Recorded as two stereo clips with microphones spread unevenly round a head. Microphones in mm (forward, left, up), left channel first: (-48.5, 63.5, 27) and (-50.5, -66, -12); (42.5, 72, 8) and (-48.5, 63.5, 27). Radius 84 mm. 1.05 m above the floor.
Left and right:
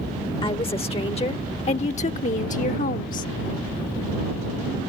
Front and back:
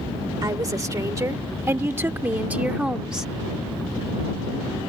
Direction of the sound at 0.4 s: 140° left.